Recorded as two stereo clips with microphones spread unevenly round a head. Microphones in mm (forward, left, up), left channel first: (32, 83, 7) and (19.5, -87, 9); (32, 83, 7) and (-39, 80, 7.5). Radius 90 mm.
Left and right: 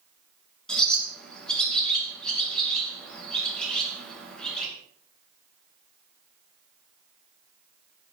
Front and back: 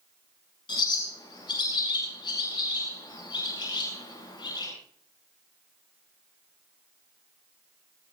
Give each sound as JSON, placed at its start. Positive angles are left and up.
{"t": 0.7, "sound": "a bird", "azimuth_deg": 0, "distance_m": 8.0}